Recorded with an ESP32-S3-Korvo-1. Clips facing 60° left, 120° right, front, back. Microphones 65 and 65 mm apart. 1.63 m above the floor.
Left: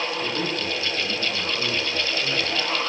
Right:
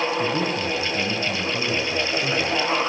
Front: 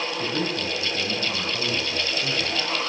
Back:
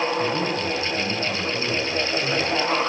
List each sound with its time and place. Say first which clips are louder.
0.2 s a man speaking: right 4 dB, back 3 dB; 90° right, 10 m